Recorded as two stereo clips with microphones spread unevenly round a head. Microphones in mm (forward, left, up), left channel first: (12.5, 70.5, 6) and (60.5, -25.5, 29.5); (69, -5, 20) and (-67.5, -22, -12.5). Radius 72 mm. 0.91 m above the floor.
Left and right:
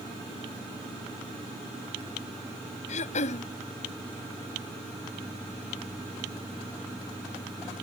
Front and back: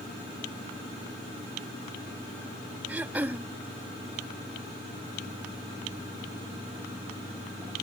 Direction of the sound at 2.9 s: 105° left.